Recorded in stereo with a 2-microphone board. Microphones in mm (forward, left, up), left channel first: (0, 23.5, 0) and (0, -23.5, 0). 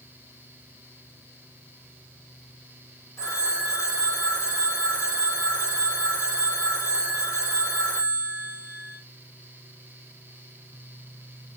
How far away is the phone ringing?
About 3 m.